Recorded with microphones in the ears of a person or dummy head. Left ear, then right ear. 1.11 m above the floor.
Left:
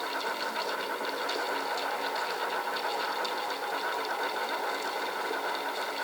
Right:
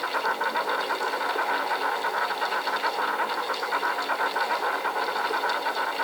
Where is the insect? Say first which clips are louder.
Right 6 dB; 45° right (ahead or behind), 3.5 m.